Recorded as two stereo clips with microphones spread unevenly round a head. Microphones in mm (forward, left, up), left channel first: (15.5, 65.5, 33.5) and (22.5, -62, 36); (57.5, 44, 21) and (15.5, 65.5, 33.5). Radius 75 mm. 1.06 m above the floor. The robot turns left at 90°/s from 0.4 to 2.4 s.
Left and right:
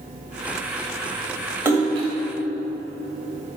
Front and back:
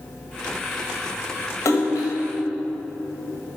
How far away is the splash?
About 1.8 m.